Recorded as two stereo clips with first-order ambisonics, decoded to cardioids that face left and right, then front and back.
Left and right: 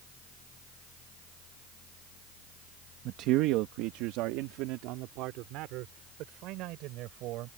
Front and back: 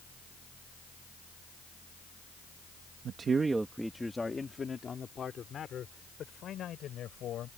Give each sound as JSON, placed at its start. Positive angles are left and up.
{"t": 3.0, "sound": "a man speaking", "azimuth_deg": -125}